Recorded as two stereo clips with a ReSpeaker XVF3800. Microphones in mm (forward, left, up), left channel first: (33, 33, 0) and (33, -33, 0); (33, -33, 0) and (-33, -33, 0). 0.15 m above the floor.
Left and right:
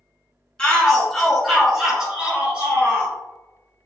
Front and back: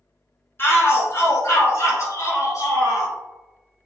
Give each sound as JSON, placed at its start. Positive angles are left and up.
{"t": 0.6, "sound": "a shout", "azimuth_deg": 20, "distance_m": 1.3}